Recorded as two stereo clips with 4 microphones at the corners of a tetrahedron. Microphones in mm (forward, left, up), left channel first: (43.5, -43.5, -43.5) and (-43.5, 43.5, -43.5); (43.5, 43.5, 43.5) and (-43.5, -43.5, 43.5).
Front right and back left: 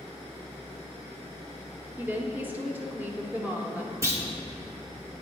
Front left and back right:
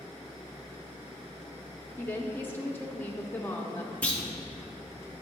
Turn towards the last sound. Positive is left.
turn(degrees=110)